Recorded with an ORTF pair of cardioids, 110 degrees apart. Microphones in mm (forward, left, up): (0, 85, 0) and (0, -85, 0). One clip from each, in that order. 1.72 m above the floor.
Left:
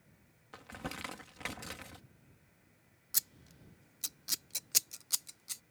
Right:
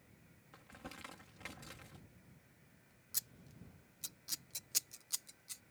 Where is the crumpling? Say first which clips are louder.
Left 9 dB; 55° left.